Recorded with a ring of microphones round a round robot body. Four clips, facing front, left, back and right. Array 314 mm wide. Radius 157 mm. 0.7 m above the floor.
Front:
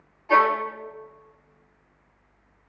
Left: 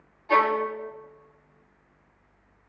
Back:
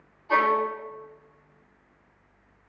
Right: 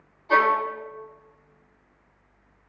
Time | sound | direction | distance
0.3 | a violin | 35° left | 1.3 m